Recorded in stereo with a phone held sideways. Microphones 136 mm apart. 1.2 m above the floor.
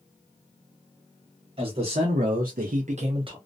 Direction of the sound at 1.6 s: 40° right (ahead or behind).